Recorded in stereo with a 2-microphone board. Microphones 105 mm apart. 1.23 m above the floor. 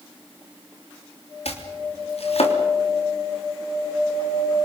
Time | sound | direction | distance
1.4 | chopping | 75° left (ahead or behind) | 3 m